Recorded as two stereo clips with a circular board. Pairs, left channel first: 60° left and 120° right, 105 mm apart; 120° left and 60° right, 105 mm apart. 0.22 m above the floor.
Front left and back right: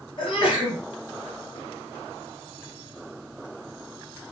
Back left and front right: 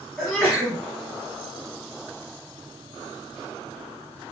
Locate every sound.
0.2 s a sneeze: 30° left, 2.5 m